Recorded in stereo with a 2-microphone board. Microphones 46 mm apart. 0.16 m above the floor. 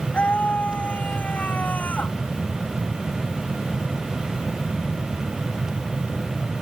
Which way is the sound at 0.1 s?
30° left (ahead or behind).